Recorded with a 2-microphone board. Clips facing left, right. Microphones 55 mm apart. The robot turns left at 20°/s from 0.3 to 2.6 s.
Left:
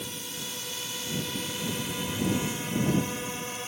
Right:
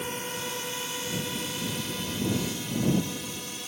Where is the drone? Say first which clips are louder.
Right 5 dB; 40° right (ahead or behind); by 3.7 s 30° left (ahead or behind).